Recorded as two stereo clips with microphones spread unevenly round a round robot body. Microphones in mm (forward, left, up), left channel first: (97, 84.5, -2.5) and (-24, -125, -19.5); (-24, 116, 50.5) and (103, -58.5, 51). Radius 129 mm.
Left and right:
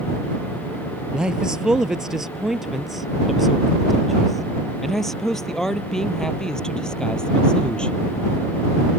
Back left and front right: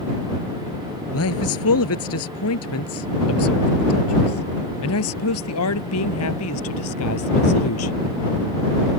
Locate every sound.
1.1 s a man speaking: 150° left; by 8.1 s 145° left